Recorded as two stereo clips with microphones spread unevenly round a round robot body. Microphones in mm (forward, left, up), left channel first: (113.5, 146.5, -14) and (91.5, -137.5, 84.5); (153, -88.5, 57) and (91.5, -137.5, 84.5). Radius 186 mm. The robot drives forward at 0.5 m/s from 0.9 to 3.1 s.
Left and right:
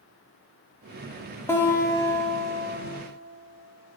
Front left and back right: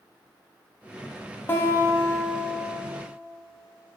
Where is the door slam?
I don't hear a door slam.